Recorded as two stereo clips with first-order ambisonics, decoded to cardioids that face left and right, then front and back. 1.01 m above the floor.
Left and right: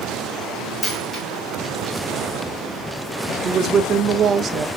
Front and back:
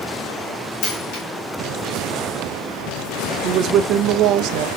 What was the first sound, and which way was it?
A dropped coin, 10° left.